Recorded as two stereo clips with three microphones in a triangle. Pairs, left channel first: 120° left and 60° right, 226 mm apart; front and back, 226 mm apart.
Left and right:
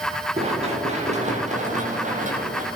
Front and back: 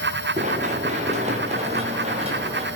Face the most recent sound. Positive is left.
turn(degrees=-115)